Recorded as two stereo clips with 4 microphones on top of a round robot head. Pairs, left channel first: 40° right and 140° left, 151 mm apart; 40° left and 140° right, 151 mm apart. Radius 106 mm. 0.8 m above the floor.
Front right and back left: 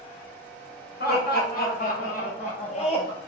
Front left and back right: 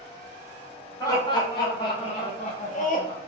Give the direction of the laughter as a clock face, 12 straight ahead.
1 o'clock.